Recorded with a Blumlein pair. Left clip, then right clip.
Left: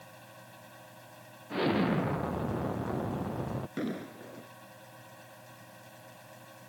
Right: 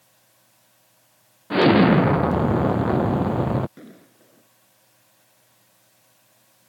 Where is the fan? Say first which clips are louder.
Left 10 dB; 55° left.